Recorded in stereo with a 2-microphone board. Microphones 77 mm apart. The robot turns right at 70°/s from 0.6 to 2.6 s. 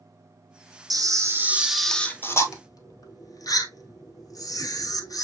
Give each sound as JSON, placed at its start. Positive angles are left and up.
{"t": 0.9, "sound": "a camera shutter", "azimuth_deg": -65, "distance_m": 0.9}